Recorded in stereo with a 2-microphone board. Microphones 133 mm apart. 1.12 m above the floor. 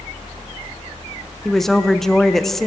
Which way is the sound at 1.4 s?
Centre (ahead or behind).